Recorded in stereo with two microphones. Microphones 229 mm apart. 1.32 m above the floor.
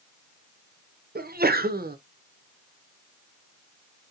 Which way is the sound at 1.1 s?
40° right (ahead or behind).